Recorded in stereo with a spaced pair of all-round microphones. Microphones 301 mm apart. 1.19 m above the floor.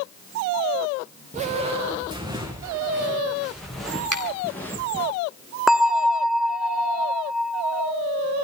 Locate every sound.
1.3 s footsteps: 25° right (ahead or behind), 5 m; by 5.1 s 10° left (ahead or behind), 8 m
4.1 s a finger snap: 75° right (ahead or behind), 3.5 m
5.7 s a bell: centre (ahead or behind), 0.9 m